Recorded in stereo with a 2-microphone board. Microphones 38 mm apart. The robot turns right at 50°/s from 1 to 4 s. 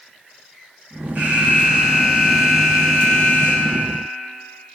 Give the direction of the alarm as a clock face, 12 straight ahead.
3 o'clock.